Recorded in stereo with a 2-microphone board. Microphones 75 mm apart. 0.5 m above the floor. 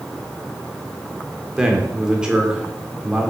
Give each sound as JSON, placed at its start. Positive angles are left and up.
{"t": 1.6, "sound": "a man speaking", "side_deg": -10, "distance_m": 1.7}